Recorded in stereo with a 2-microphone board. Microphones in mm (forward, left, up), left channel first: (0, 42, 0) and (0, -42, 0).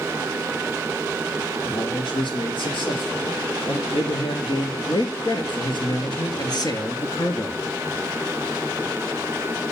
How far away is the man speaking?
About 6.5 m.